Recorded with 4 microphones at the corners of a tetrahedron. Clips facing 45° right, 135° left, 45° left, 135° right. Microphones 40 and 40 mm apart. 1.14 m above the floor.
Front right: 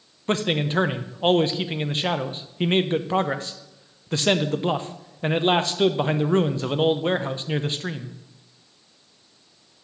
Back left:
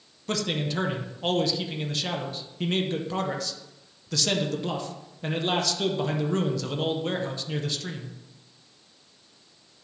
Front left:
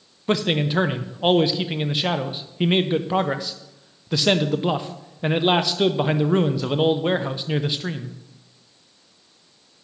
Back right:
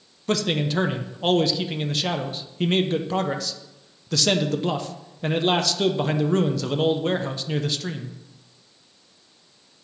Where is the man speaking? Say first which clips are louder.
Front right 5 dB, front left 2 dB; 15° right, 0.6 m.